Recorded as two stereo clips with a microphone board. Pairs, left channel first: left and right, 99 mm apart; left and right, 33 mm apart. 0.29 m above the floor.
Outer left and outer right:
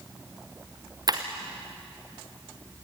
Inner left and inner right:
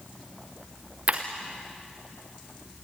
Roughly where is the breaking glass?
Right.